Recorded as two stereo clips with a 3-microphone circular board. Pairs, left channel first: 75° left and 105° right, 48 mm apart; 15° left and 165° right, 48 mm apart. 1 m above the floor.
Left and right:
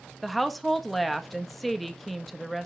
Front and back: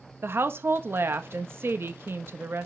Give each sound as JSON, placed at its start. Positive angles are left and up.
{"t": 0.2, "sound": "a woman speaking", "azimuth_deg": 165, "distance_m": 1.1}